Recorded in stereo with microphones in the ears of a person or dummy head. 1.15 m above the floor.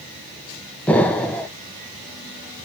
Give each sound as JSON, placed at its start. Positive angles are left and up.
{"t": 0.9, "sound": "an explosion", "side_deg": 10, "distance_m": 0.7}